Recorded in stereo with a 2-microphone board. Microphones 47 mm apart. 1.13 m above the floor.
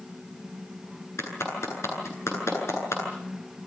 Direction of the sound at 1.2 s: 85° left.